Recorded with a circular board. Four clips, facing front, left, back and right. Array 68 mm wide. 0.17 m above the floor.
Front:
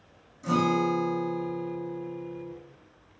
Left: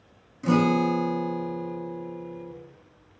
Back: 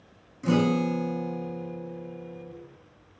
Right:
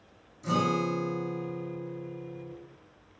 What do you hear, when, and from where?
0.4 s a guitar: 120° left, 0.5 m